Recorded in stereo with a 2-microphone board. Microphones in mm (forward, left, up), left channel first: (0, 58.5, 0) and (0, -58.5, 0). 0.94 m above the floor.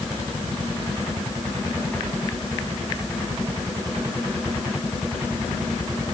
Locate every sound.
Only background noise.